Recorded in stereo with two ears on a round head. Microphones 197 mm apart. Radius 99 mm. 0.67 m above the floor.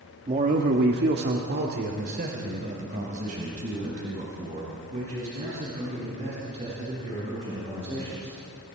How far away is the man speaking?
About 1.3 m.